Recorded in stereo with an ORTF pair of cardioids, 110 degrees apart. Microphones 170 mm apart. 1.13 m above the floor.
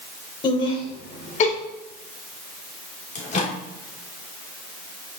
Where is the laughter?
25° left, 4 m; by 1.5 s 45° left, 4 m.